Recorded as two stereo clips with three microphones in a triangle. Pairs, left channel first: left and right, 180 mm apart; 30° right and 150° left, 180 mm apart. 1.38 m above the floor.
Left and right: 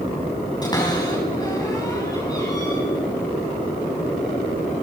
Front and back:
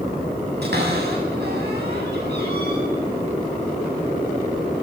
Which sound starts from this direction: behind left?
A cupboard door, at 0.6 s.